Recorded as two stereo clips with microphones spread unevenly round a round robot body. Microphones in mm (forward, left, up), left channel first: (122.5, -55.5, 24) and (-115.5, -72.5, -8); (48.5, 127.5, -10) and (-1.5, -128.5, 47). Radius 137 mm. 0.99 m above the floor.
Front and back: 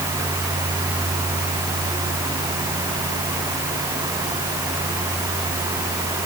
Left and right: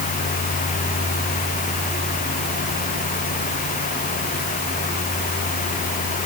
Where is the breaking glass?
No breaking glass in this recording.